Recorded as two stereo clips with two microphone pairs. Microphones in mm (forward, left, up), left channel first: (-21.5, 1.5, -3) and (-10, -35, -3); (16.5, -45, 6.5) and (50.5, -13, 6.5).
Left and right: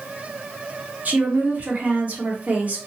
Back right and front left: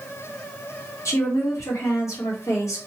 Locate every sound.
1.1 s a woman speaking: 125° right, 1.1 m